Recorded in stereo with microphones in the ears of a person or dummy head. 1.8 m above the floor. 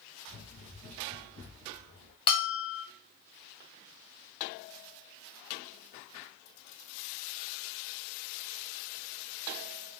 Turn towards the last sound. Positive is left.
turn(degrees=30)  # may be behind; listen again after turning